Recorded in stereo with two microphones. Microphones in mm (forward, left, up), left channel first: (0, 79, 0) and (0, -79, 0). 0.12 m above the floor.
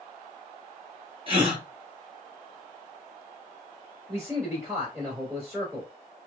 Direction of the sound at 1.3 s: 35° right (ahead or behind).